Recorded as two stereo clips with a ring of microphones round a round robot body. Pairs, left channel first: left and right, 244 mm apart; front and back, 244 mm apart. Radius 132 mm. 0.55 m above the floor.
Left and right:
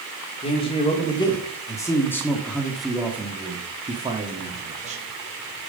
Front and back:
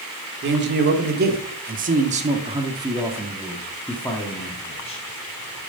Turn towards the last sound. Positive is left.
turn(degrees=-50)